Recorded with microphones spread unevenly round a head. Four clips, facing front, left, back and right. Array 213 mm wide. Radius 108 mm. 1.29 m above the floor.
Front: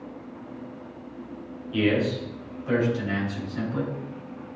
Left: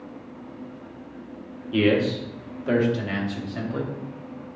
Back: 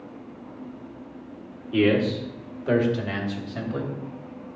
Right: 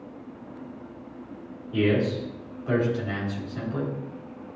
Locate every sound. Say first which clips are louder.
1.7 s a man speaking: left 3 dB, back 3 dB; 115° left, 1.8 m; by 3.9 s 145° left, 2.5 m